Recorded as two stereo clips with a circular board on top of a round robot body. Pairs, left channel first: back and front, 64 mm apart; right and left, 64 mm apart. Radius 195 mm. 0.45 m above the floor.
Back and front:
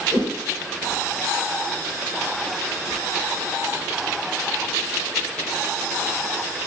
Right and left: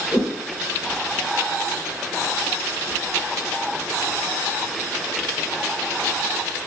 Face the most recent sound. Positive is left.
turn(degrees=5)